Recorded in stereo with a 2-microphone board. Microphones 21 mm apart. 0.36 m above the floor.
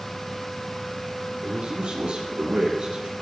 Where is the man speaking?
55° right (ahead or behind), 7 m; by 3.1 s 50° right (ahead or behind), 5.5 m.